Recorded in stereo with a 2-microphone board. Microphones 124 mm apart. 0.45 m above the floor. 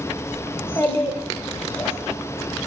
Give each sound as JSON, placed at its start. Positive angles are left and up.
{"t": 0.5, "sound": "a child speaking", "side_deg": 20, "distance_m": 0.8}